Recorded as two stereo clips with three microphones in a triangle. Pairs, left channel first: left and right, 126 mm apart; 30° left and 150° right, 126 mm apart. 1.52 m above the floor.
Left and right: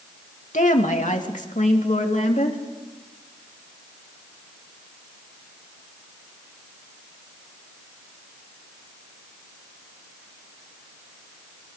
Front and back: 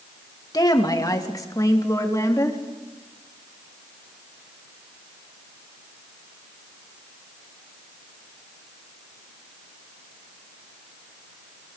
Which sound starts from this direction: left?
A woman speaking, at 0.5 s.